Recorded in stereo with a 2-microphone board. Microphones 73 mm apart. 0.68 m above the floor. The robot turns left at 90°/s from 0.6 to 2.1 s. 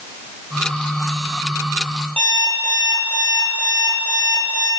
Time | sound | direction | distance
2.2 | an alarm clock | 20° left (ahead or behind) | 9.5 m